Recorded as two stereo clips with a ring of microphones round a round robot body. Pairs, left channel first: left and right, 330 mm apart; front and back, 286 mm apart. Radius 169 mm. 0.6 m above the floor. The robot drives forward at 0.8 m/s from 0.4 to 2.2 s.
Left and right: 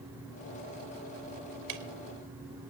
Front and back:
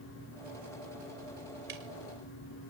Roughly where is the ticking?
Behind right.